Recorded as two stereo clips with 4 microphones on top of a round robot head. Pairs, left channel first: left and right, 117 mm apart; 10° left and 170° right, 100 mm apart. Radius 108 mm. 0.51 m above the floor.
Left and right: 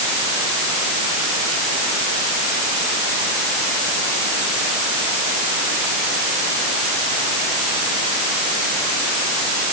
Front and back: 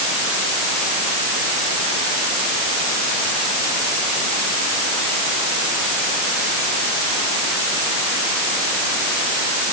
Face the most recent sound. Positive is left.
No sound to turn to.